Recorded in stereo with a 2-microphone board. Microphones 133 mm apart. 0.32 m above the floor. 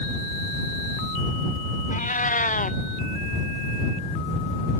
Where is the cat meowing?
75° left (ahead or behind).